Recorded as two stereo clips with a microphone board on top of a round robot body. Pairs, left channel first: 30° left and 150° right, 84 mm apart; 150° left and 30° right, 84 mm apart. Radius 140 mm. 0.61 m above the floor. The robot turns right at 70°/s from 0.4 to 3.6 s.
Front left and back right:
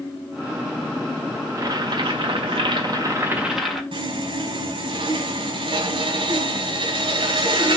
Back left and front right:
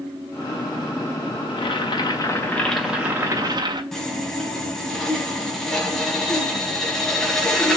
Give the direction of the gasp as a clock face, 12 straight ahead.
I don't hear a gasp.